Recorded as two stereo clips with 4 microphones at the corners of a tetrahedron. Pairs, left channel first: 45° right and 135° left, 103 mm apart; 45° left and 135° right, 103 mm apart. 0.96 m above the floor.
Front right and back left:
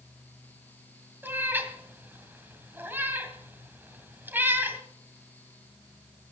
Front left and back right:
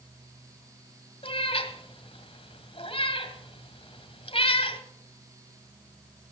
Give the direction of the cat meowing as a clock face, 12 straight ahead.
10 o'clock.